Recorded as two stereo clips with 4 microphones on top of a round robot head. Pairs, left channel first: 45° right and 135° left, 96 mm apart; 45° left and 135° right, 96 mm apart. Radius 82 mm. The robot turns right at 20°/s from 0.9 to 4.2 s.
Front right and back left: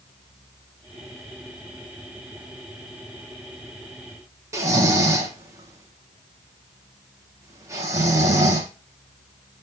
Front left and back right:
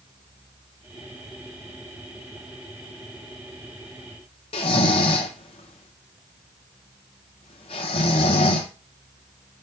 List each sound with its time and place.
4.5 s snoring: 75° left, 0.5 m